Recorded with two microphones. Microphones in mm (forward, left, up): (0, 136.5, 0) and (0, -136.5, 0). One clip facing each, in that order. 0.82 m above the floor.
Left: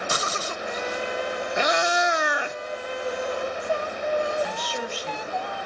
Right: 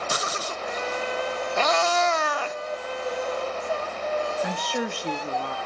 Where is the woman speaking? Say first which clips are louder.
Right 2 dB; 55° right (ahead or behind), 1.4 m.